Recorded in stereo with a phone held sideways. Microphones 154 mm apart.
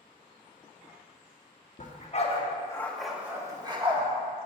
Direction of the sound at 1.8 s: 55° left (ahead or behind).